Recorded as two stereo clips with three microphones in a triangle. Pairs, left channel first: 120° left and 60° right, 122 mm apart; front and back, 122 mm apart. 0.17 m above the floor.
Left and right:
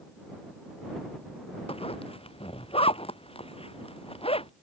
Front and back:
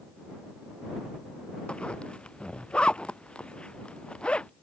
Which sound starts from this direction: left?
A zipper, at 1.7 s.